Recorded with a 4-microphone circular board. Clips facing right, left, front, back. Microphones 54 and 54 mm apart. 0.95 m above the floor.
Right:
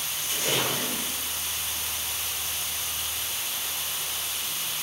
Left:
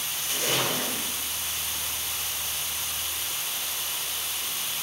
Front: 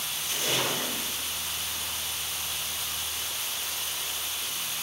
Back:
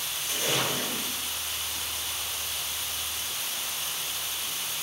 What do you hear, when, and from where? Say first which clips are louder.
0.2 s a splash: even, back 1 dB; 115° left, 3 m